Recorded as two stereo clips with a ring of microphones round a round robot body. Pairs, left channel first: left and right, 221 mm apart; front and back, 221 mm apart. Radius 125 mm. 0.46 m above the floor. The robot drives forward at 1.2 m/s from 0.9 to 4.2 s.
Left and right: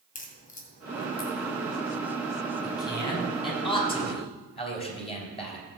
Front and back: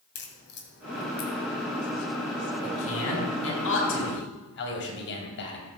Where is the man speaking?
20° left, 5.5 m; by 5.7 s 30° left, 3.5 m.